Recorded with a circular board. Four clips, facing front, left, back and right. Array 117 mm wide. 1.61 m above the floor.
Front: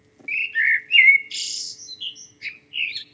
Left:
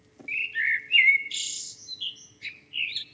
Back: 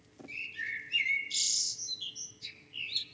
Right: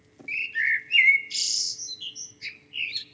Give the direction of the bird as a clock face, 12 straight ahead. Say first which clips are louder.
Right 1 dB, front 19 dB; 12 o'clock.